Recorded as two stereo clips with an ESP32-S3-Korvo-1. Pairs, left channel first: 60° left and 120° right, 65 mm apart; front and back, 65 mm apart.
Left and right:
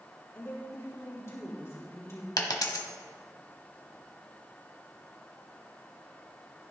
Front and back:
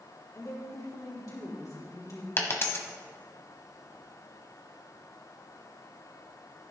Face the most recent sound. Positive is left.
turn(degrees=50)